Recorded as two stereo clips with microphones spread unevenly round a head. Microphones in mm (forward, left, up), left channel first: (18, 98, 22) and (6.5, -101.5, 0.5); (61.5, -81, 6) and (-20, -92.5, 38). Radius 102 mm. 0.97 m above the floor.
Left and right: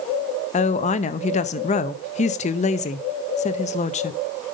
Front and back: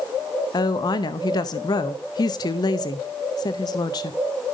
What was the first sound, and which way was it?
A woman speaking, 30° left.